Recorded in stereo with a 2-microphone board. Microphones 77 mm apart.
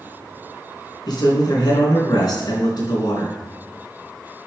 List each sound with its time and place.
1.1 s a man speaking: 65° left (ahead or behind), 3 m